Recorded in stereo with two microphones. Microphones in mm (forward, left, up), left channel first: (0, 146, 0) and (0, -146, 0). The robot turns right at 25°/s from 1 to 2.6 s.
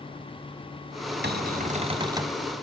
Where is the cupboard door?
35° right (ahead or behind), 1.4 m; by 2.4 s 5° right (ahead or behind), 1.4 m.